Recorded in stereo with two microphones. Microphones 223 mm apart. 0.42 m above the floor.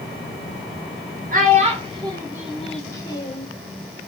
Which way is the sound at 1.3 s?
40° right (ahead or behind).